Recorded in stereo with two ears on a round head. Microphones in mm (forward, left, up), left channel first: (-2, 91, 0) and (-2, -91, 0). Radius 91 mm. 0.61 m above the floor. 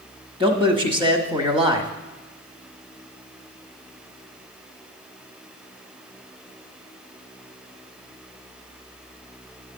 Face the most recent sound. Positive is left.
turn(degrees=-25)  # may be behind; listen again after turning